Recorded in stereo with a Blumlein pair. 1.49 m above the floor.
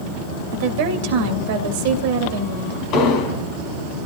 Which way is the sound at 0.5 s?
50° right.